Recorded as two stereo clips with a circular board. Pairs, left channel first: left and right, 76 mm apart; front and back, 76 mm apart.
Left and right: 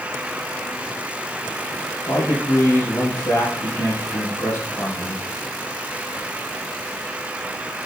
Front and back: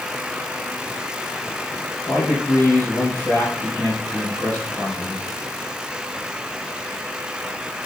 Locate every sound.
2.1 s a man speaking: 55° left, 5 m